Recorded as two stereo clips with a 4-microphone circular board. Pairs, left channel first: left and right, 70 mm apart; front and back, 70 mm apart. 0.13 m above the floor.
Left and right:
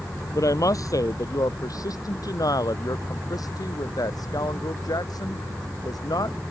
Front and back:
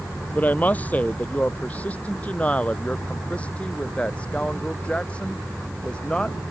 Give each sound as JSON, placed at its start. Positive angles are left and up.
{"t": 0.3, "sound": "a woman speaking", "azimuth_deg": 65}